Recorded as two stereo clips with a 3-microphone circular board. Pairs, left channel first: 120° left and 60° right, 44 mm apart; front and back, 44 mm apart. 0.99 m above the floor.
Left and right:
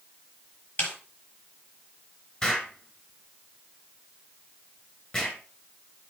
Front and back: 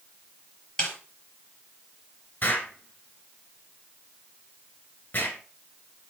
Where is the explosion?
55° left, 2.5 m.